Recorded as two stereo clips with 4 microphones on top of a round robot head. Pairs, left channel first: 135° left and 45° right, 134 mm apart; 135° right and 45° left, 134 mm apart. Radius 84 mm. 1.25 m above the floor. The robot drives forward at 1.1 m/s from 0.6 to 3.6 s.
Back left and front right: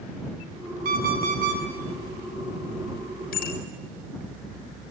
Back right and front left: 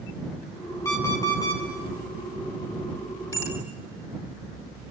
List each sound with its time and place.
0.8 s an alarm clock: 65° right, 7 m; by 1.6 s 70° right, 6.5 m
3.3 s a bicycle bell: 155° left, 6 m